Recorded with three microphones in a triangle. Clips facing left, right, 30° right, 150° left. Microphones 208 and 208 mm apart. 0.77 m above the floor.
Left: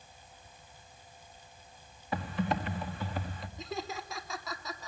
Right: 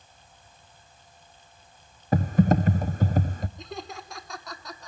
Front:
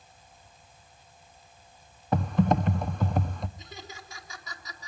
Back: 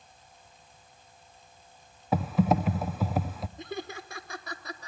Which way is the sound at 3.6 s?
Straight behind.